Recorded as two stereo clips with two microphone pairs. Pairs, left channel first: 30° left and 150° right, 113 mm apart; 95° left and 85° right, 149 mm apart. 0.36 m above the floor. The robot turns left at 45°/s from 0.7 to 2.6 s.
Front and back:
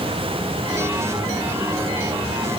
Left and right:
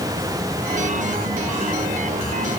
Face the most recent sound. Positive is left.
No sound to turn to.